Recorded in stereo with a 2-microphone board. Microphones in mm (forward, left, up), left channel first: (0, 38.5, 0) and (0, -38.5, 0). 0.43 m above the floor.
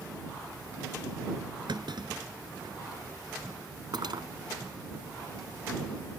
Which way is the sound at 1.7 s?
80° right.